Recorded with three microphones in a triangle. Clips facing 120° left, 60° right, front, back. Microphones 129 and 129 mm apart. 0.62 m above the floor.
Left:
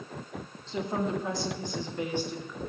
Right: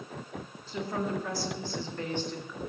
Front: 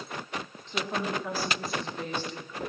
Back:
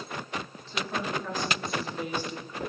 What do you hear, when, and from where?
0.7 s a woman speaking: 60° left, 1.3 m; by 2.6 s 165° right, 0.9 m